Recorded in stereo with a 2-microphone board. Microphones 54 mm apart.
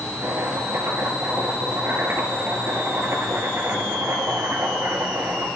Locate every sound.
0.2 s chopping: 50° right (ahead or behind), 2.5 m